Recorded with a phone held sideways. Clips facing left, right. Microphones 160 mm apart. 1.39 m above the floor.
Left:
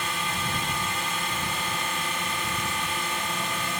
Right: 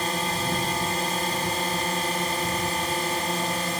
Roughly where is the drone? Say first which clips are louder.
Right 4 dB; right.